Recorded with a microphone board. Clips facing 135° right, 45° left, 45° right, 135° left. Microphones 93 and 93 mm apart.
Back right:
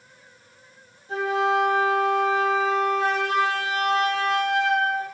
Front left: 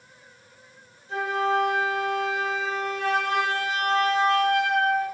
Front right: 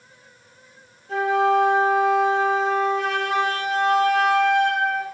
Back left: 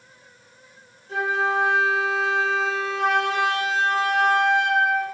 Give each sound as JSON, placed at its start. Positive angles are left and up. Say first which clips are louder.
{"t": 1.1, "sound": "a flute", "louder": "back right 2 dB, front right 5 dB", "azimuth_deg": -85, "distance_m": 1.0}